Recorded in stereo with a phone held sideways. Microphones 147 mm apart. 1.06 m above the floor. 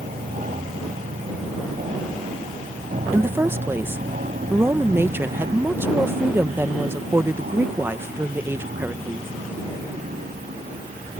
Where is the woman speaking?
15° right (ahead or behind).